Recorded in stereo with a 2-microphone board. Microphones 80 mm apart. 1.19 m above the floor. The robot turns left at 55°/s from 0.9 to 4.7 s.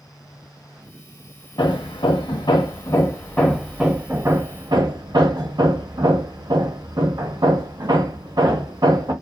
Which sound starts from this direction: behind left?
Hammering, at 1.6 s.